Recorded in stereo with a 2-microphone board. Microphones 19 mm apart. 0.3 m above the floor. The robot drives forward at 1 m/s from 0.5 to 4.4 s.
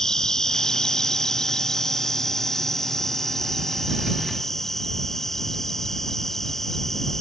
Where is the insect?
30° left (ahead or behind); by 7.2 s 20° left (ahead or behind).